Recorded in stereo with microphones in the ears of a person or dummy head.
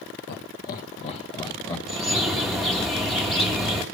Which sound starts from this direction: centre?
A bird, at 1.9 s.